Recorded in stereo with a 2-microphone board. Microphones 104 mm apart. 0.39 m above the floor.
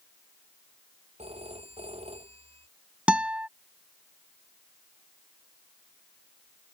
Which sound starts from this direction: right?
A phone ringing, at 1.2 s.